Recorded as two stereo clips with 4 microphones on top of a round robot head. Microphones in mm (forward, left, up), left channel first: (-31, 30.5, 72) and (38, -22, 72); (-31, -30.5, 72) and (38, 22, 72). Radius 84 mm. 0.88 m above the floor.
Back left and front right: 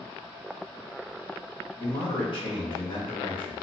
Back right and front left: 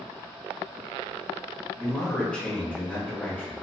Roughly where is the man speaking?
Behind left.